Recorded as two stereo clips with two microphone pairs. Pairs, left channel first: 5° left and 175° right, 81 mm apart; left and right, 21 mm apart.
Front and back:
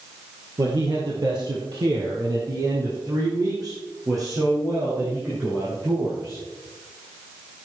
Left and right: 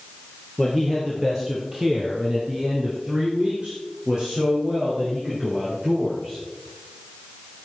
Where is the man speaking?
175° right, 3 m; by 6.4 s 125° right, 9 m.